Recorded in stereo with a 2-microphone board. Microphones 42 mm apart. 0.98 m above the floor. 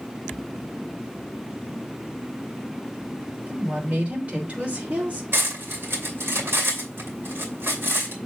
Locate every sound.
3.5 s a woman speaking: 35° right (ahead or behind), 3.5 m
5.3 s cutlery clinking: 65° right (ahead or behind), 2.5 m